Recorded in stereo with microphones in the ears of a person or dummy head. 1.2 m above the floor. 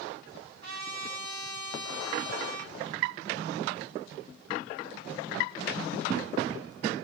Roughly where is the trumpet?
Right.